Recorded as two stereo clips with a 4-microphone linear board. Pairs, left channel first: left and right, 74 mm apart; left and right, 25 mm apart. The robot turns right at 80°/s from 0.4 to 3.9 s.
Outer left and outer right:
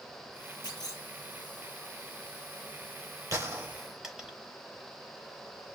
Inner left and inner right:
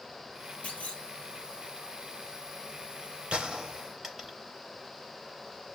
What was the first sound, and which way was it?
A clunk, 85° left.